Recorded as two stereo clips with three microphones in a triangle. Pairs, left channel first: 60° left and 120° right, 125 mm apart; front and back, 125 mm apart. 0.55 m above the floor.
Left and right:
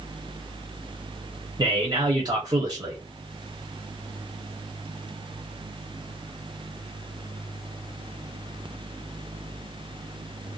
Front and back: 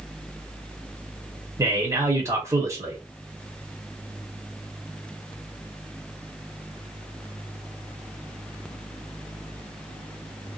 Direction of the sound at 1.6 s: 135° right.